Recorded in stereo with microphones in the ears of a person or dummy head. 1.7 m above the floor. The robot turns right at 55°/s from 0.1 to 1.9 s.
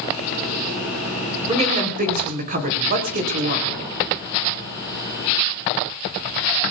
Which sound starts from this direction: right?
A woman speaking, at 1.5 s.